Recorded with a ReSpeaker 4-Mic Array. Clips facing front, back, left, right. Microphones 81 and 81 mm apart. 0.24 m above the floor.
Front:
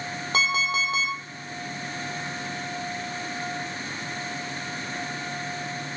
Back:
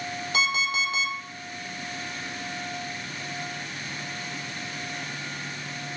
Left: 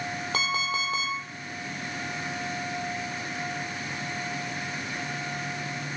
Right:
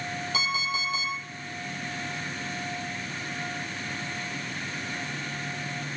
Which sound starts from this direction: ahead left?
An alarm clock, at 0.3 s.